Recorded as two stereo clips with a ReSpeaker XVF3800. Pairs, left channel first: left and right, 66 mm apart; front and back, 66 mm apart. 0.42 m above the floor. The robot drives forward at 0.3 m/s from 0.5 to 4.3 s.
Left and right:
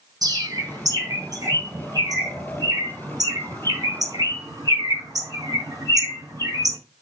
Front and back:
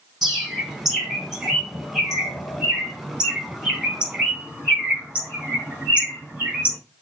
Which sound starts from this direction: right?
A bird, at 0.2 s.